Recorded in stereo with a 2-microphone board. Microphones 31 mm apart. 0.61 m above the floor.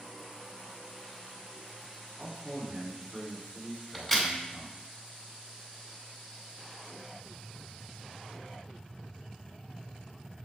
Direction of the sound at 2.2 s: 15° right (ahead or behind).